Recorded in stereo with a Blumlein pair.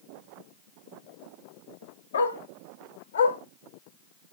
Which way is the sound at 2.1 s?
70° left.